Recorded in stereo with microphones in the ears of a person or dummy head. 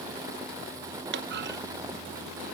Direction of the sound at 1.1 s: 60° right (ahead or behind).